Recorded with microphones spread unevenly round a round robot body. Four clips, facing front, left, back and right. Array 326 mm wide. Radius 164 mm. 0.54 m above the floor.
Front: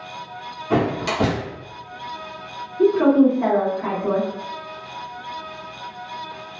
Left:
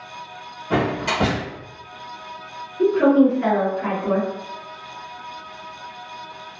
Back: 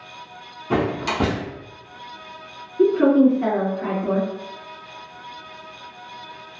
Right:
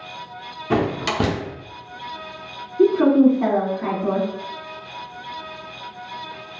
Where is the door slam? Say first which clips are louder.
Even, front 1 dB; 110° right, 0.9 m.